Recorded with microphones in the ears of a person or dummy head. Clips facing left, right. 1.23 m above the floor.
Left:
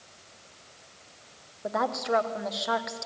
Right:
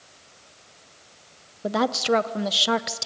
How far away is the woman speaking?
About 0.8 m.